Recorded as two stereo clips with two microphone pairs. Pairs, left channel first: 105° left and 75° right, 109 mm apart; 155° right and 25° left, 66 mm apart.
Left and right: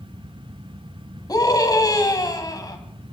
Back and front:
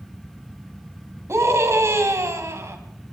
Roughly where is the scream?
Ahead left.